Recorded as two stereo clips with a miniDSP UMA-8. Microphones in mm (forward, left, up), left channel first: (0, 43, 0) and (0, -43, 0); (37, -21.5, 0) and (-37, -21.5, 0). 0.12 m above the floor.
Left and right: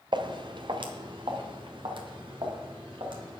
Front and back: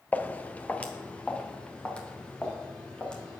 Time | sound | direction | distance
0.1 | footsteps | 70° right | 1.0 m